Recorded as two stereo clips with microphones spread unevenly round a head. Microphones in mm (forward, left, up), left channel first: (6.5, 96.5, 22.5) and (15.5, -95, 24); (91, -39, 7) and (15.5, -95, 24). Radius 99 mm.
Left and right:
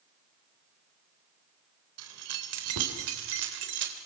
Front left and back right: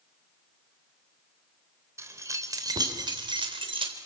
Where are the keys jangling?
85° right, 3.5 m; by 4.0 s 125° right, 3.5 m.